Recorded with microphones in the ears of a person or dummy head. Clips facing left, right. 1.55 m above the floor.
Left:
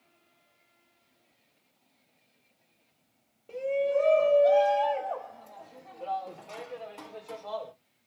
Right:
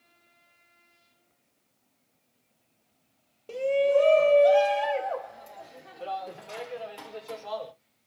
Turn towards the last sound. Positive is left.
turn(degrees=-5)  # may be behind; listen again after turning